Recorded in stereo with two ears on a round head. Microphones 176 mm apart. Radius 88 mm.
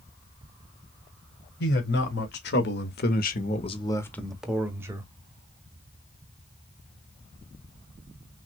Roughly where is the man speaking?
Left.